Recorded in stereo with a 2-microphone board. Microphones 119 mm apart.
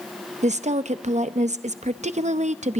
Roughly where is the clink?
I don't hear a clink.